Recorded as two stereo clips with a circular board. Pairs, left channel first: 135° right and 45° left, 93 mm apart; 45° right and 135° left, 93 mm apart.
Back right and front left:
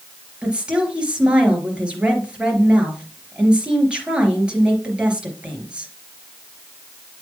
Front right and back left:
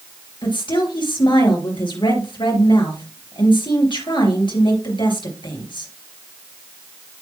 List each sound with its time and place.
0.4 s a woman speaking: 35° right, 3.5 m